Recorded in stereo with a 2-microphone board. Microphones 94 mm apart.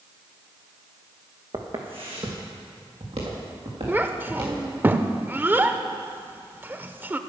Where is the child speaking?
20° right (ahead or behind), 0.5 m.